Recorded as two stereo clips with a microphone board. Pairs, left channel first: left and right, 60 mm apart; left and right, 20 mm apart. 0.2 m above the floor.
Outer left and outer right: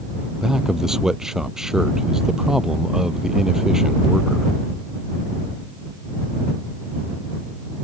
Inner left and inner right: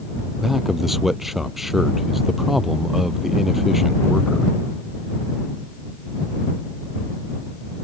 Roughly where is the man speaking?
Centre.